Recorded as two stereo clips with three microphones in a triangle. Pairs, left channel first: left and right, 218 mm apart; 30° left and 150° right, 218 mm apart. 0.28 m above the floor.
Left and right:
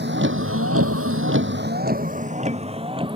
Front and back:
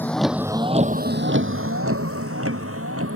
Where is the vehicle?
50° right; by 3.2 s 160° right.